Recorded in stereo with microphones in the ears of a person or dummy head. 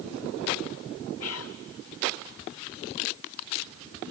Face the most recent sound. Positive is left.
turn(degrees=70)  # may be behind; listen again after turning